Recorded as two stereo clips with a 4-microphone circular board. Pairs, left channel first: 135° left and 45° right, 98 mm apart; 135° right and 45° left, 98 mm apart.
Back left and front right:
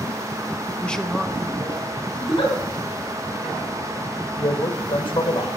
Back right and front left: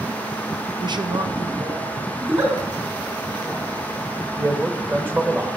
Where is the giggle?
100° left, 3.5 m.